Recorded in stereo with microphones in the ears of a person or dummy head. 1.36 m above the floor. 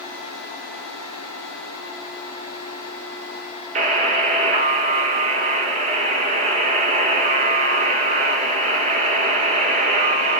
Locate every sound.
3.8 s a buzzer: 35° right (ahead or behind), 1.1 m